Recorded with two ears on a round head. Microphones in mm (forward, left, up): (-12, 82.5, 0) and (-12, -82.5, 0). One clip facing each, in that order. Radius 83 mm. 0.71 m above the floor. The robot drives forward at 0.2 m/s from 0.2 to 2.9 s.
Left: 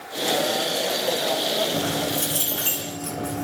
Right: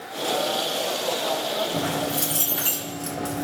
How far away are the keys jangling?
About 1.1 m.